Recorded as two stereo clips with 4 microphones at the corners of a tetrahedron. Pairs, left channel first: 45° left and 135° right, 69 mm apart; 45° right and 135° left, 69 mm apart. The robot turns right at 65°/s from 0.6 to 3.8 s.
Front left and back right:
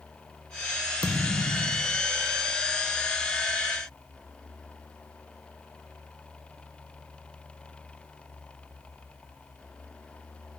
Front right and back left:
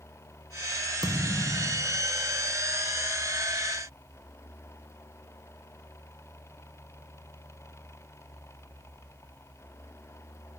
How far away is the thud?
About 1.4 m.